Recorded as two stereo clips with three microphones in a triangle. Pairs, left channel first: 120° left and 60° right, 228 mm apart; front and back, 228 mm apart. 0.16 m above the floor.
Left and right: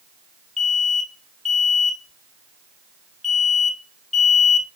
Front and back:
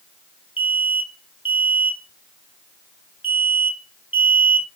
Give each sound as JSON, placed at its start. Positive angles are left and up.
{"t": 0.6, "sound": "an alarm", "azimuth_deg": 35, "distance_m": 0.9}